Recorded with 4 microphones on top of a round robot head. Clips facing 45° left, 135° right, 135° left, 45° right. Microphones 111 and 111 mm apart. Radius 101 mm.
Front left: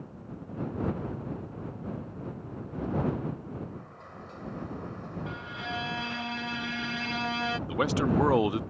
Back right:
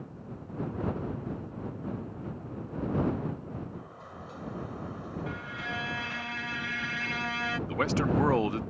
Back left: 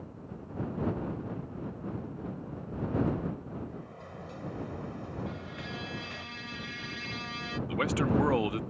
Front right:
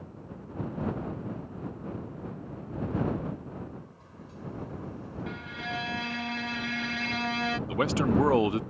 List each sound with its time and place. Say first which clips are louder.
3.7 s a sliding door: back right 1 dB, back left 3 dB; 145° left
5.3 s a violin: even, front right 3 dB; 20° right
7.7 s a man speaking: front left 1 dB, front right 2 dB; 20° right